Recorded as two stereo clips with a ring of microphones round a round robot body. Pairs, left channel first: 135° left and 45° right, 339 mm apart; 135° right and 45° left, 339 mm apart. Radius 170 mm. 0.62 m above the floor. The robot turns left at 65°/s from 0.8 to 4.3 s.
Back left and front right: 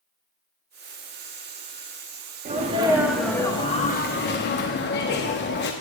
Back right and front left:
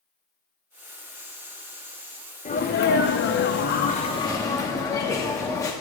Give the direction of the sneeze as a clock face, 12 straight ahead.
3 o'clock.